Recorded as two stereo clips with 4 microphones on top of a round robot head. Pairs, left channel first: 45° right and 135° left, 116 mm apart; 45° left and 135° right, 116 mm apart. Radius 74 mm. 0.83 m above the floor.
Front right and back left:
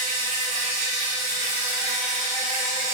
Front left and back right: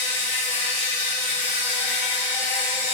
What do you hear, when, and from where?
0.0 s an insect: 150° left, 1.0 m